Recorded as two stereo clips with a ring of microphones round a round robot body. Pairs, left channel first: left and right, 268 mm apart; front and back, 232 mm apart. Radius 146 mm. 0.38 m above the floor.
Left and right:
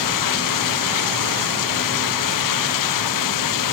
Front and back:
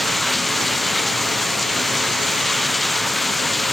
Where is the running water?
90° left.